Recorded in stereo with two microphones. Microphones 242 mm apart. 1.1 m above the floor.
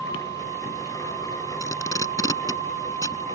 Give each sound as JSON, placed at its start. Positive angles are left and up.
{"t": 1.6, "sound": "tape being pulled", "side_deg": 15}